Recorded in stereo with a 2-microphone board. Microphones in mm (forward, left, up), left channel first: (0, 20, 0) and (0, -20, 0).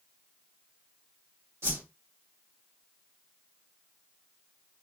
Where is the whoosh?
80° right, 2.5 m.